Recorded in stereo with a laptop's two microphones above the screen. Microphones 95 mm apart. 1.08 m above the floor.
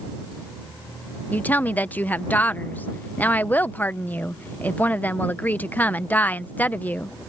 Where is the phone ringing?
I don't hear a phone ringing.